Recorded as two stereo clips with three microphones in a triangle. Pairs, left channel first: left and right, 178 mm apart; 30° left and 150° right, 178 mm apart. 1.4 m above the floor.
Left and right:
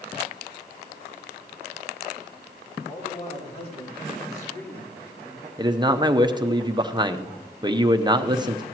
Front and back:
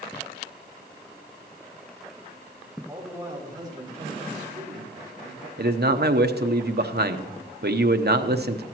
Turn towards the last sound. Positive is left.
turn(degrees=-155)